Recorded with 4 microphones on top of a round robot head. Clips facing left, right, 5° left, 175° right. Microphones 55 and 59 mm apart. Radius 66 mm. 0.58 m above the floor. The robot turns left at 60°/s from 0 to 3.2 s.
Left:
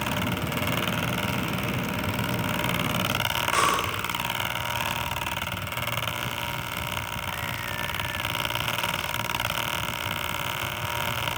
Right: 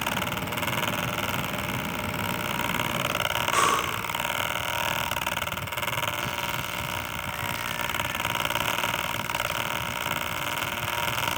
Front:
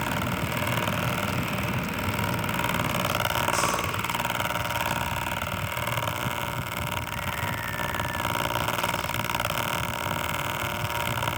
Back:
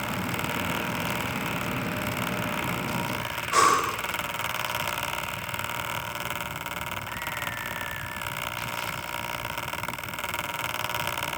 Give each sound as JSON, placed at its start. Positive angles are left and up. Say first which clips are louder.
{"t": 3.5, "sound": "breathing", "louder": "even, back 5 dB", "azimuth_deg": -175, "distance_m": 1.8}